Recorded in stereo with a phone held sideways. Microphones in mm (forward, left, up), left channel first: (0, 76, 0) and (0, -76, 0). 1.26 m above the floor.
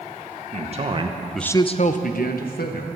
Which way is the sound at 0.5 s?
50° right (ahead or behind).